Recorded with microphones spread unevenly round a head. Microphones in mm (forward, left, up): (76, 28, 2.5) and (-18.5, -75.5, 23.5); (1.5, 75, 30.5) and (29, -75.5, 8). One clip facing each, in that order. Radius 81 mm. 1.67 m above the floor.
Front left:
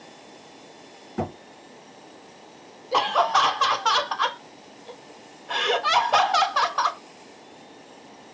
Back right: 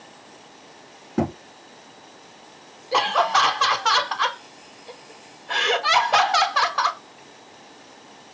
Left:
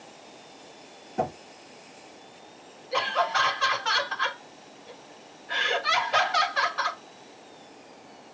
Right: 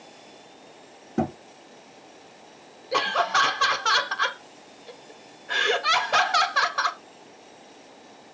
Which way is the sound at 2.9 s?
45° right.